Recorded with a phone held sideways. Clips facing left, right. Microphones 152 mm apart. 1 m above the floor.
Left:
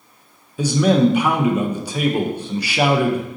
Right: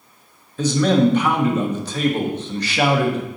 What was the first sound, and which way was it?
A man speaking, 10° left (ahead or behind).